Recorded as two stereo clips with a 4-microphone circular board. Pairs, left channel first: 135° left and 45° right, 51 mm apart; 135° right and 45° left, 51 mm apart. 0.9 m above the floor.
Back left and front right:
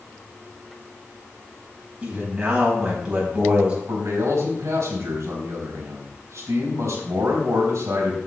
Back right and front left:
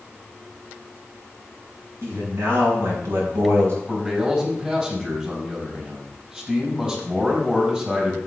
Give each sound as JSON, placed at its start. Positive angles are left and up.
{"t": 2.0, "sound": "a man speaking", "azimuth_deg": 25, "distance_m": 5.0}
{"t": 3.9, "sound": "a man speaking", "azimuth_deg": -20, "distance_m": 4.0}